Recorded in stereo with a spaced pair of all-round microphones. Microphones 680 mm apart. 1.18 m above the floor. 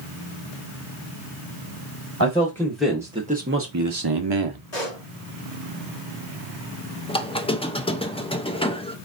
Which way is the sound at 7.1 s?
10° left (ahead or behind).